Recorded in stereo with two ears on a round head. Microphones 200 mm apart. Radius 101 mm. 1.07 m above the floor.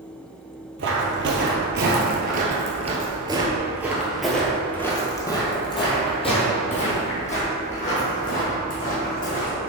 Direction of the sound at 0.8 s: 55° right (ahead or behind).